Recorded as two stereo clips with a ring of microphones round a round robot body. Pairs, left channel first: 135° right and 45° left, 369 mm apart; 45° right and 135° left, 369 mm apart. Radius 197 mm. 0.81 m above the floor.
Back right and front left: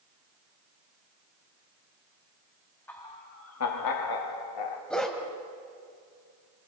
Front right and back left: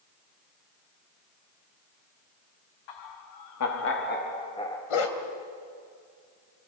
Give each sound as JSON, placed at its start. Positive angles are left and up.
{"t": 2.9, "sound": "laughter", "azimuth_deg": -50, "distance_m": 1.4}
{"t": 4.9, "sound": "a dog barking", "azimuth_deg": -45, "distance_m": 2.5}